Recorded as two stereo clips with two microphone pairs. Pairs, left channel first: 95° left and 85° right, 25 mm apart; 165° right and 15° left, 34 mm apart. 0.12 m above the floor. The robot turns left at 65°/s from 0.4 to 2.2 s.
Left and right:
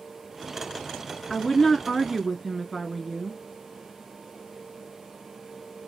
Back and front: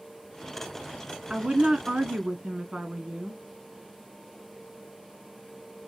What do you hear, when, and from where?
1.3 s a woman speaking: 50° left, 1.2 m; by 3.4 s 10° right, 1.2 m